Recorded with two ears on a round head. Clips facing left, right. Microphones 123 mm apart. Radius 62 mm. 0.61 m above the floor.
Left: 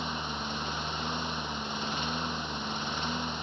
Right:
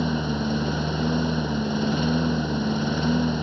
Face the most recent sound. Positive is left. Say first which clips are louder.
# right 11 dB
turn(degrees=-85)